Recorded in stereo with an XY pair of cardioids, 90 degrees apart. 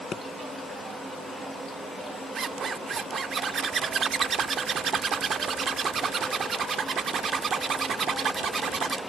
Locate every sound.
0.1 s a pop: 40° left, 1.5 m
2.4 s a zipper: 55° right, 0.6 m